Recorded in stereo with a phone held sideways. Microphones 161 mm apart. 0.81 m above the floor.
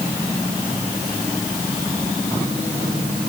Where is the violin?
No violin in this recording.